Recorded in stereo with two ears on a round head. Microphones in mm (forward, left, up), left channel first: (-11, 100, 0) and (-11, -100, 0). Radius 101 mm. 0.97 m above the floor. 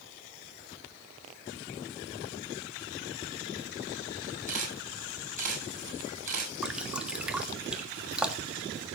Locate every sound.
4.5 s a camera shutter: 35° right (ahead or behind), 6.5 m
6.6 s dripping: 5° right (ahead or behind), 1.5 m